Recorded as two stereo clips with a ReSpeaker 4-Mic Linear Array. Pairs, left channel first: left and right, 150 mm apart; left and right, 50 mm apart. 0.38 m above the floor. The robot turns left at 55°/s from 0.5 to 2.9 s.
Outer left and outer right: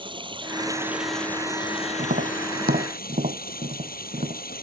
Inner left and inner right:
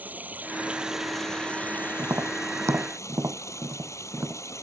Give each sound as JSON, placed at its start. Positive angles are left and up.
{"t": 0.0, "sound": "running water", "azimuth_deg": -145}
{"t": 2.0, "sound": "tapping", "side_deg": -70}